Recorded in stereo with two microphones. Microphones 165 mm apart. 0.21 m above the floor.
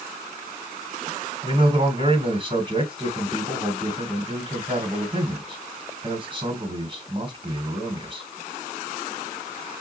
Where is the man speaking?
35° right (ahead or behind), 1.7 m.